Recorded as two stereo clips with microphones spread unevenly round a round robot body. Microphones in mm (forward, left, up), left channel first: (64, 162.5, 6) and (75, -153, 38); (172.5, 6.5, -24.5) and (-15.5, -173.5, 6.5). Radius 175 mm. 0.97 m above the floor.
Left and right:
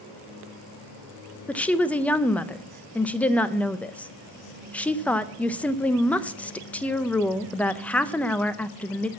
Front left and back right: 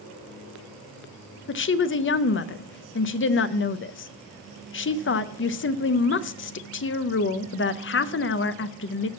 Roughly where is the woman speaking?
Ahead.